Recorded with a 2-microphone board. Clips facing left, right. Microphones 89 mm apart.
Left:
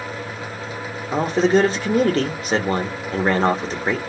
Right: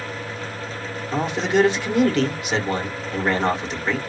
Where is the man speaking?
35° left (ahead or behind), 1.4 m.